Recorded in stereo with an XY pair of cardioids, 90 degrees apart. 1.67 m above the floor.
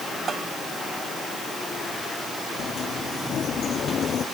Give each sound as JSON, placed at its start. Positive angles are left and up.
{"t": 0.3, "sound": "a bell", "azimuth_deg": -55}
{"t": 2.6, "sound": "a sliding door", "azimuth_deg": 55}